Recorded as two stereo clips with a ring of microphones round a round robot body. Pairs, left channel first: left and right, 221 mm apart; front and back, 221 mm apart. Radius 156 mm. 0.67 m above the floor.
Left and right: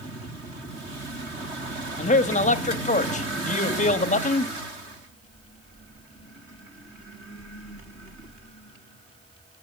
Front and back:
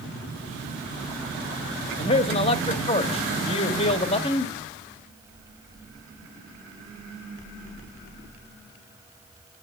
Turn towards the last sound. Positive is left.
turn(degrees=55)